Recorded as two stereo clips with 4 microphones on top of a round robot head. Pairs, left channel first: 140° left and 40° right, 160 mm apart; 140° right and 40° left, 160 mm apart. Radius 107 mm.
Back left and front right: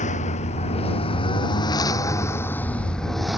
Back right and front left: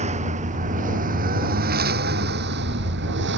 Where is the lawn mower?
90° left; by 3.4 s 45° left.